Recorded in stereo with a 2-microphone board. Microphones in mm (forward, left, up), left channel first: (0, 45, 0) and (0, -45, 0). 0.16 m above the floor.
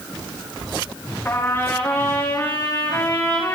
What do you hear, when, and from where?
1.2 s a trumpet: 25° left (ahead or behind), 9.5 m